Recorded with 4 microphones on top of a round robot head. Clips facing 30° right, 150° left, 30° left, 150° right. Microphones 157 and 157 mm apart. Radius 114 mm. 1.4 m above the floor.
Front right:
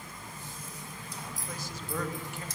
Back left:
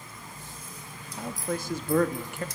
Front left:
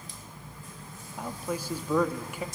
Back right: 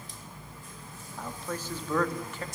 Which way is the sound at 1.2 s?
110° left.